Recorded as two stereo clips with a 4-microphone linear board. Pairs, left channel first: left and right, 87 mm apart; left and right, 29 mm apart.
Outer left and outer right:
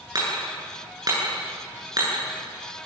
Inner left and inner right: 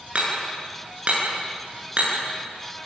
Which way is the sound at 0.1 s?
45° right (ahead or behind).